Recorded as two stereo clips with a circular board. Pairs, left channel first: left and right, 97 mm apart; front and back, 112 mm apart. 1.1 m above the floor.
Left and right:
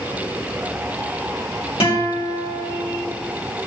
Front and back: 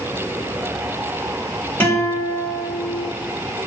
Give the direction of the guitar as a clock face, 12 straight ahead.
10 o'clock.